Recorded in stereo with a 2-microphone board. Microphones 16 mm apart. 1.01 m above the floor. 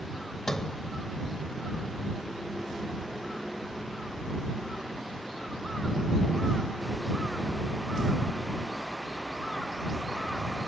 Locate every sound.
0.5 s a sliding door: 35° left (ahead or behind)